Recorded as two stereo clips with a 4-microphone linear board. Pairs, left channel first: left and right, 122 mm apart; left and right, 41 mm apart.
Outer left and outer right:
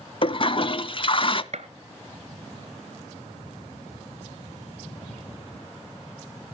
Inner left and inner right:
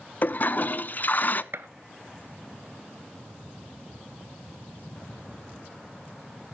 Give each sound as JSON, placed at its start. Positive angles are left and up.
{"t": 0.2, "sound": "a toilet flushing", "side_deg": 45, "distance_m": 0.5}
{"t": 1.5, "sound": "a gunshot", "side_deg": -65, "distance_m": 0.7}